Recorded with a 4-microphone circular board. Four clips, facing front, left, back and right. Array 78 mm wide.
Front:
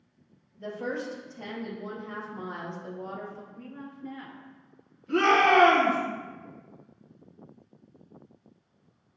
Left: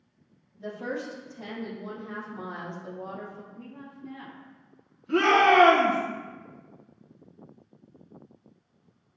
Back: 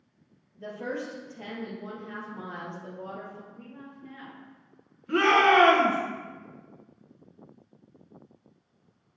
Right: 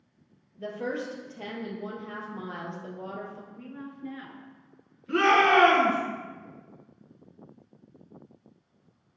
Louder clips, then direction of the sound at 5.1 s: Left 1 dB, back 1 dB; 155° right.